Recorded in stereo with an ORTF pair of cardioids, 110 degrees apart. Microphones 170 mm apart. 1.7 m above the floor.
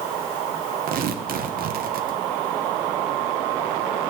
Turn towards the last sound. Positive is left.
turn(degrees=-55)